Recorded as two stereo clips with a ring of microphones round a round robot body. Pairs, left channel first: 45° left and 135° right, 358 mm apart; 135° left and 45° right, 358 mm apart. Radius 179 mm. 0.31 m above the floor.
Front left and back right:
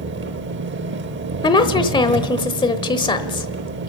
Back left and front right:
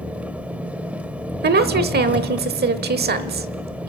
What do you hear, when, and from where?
0.0 s an engine running: 125° right, 0.8 m
1.4 s a woman speaking: 20° right, 1.0 m